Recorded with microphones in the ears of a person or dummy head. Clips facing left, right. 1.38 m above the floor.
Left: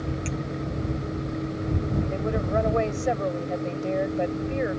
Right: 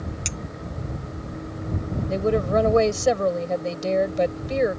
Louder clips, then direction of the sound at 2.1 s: Right 9 dB; 55° right (ahead or behind).